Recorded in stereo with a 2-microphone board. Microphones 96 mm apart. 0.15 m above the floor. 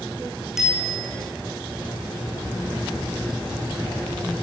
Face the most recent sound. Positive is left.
turn(degrees=-5)  # may be behind; listen again after turning